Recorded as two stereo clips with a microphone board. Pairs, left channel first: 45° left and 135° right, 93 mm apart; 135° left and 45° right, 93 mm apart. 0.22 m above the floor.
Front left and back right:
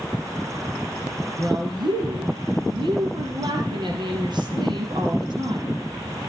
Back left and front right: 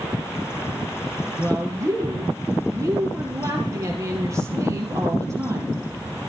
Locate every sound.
1.4 s a woman speaking: 100° right, 4.5 m